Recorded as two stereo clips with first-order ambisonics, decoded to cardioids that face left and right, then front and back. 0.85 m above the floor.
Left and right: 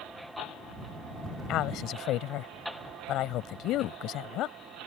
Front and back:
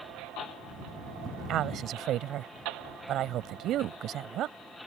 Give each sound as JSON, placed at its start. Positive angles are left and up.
{"t": 1.5, "sound": "a woman speaking", "azimuth_deg": 130}